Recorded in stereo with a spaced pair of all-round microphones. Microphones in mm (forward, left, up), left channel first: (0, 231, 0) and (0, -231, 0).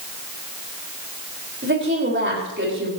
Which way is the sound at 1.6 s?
25° right (ahead or behind).